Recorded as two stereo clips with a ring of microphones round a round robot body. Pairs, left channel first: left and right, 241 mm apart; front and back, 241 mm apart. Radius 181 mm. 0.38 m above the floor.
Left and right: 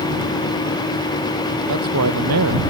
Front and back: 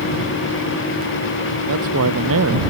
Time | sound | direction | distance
1.7 | a man speaking | 130° right | ?